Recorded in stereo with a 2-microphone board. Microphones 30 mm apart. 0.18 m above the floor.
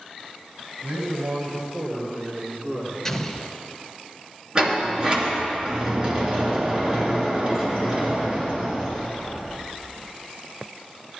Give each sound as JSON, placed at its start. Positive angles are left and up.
{"t": 0.8, "sound": "a man speaking", "side_deg": -60, "distance_m": 3.0}
{"t": 3.0, "sound": "an explosion", "side_deg": 15, "distance_m": 0.7}
{"t": 4.5, "sound": "a sliding door", "side_deg": -25, "distance_m": 2.5}